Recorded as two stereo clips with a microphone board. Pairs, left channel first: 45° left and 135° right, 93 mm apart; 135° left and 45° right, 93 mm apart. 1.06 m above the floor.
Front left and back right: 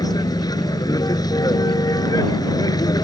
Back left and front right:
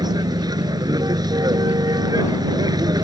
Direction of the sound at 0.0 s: Straight ahead.